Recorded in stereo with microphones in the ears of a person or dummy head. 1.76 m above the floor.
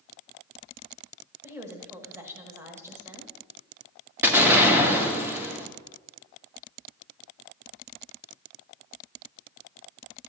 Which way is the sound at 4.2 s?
10° right (ahead or behind).